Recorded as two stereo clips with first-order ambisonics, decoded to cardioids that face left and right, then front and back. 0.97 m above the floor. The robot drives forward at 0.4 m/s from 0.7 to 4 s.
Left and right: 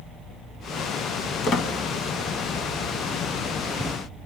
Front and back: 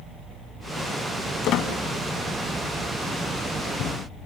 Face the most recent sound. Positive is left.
turn(degrees=100)